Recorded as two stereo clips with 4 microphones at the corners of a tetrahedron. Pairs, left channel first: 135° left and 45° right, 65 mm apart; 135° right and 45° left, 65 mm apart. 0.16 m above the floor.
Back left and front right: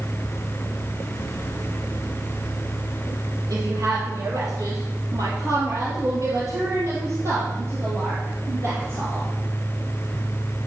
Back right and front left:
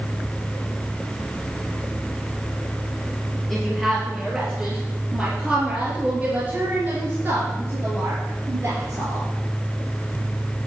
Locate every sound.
3.5 s a woman speaking: 50° right, 4 m; by 9.3 s 5° left, 4 m